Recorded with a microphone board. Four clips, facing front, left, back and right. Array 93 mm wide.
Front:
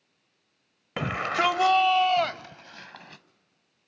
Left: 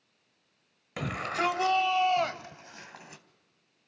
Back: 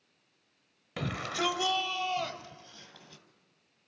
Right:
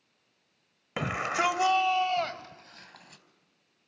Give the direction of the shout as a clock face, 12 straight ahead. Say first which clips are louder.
Right 2 dB, front 8 dB; 1 o'clock.